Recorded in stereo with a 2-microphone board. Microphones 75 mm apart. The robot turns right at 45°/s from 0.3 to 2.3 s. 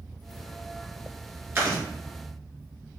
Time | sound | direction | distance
1.6 | chewing | 30° right (ahead or behind) | 2.5 m